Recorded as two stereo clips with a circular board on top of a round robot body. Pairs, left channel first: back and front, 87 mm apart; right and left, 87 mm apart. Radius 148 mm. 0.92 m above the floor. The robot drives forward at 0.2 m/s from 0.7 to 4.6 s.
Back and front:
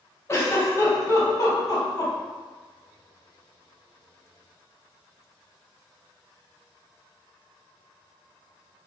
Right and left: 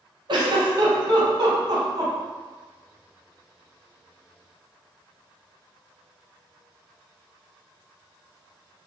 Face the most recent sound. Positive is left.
turn(degrees=150)